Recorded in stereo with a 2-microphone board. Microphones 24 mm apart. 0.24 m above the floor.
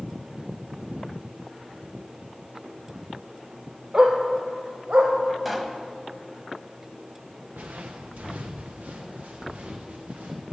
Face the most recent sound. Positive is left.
turn(degrees=-75)  # may be behind; listen again after turning